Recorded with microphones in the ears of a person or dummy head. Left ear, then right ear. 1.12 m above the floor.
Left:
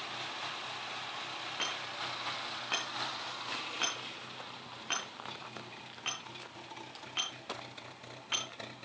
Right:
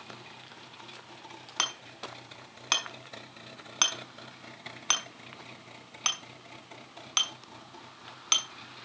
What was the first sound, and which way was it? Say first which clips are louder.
Hammering: right 6 dB; 70° right (ahead or behind).